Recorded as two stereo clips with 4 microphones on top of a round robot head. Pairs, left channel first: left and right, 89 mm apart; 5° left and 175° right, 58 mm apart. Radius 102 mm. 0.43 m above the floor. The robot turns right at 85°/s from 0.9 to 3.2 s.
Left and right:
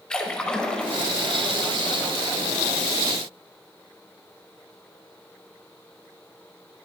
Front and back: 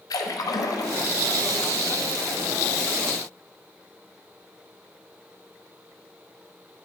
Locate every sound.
0.1 s a splash: 10° left, 0.7 m; by 1.0 s 15° left, 0.7 m